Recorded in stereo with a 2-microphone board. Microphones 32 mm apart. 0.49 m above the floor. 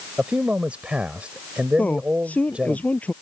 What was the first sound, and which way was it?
A man speaking, 45° right (ahead or behind).